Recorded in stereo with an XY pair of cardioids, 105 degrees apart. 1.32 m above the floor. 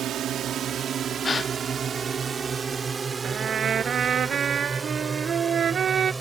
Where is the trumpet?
50° right.